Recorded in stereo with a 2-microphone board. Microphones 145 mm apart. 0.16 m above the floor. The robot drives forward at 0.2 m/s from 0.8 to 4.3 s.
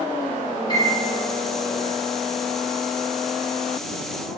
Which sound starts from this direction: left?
A piano, at 0.7 s.